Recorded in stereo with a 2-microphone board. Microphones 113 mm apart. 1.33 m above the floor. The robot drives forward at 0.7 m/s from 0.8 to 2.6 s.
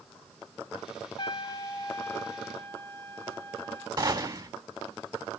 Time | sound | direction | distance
1.2 | a trumpet | 45° left (ahead or behind) | 0.7 m
4.0 | a gunshot | 40° right (ahead or behind) | 3 m